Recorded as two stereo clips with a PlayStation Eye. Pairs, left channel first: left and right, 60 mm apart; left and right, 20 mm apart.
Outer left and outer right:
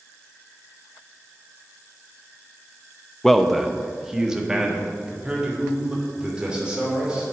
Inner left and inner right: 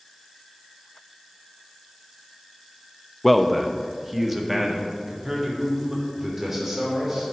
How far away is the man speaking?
About 0.5 m.